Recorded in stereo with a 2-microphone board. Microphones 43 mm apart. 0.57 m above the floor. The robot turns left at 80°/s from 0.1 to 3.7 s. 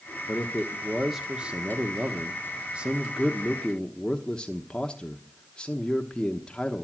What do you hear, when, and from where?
0.3 s a man speaking: 60° left, 1.1 m; by 6.8 s 145° left, 1.1 m